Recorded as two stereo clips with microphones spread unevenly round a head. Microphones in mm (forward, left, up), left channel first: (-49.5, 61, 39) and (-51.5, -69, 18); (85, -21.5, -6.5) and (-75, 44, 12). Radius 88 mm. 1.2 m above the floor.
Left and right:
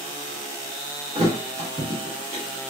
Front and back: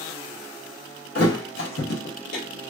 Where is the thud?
35° right, 1.0 m.